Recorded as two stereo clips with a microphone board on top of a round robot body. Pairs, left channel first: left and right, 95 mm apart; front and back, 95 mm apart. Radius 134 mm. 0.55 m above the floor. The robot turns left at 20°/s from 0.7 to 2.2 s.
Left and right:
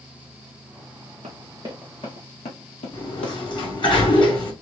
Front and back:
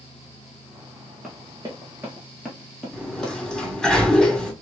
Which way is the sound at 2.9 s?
85° left.